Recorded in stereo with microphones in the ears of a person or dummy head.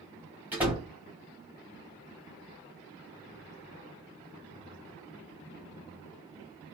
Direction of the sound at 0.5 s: 10° right (ahead or behind).